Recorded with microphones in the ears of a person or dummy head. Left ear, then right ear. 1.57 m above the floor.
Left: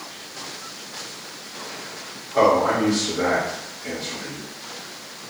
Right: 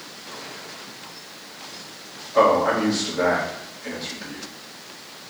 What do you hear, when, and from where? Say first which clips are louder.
2.3 s a man speaking: even; 10° right (ahead or behind), 1.8 m